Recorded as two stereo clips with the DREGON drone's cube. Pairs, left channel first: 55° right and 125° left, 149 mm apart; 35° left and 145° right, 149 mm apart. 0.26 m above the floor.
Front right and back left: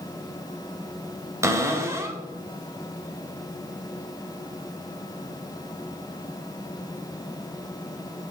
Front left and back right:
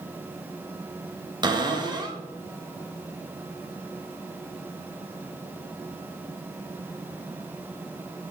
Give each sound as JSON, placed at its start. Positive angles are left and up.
{"t": 1.4, "sound": "a cupboard door", "azimuth_deg": 180, "distance_m": 1.2}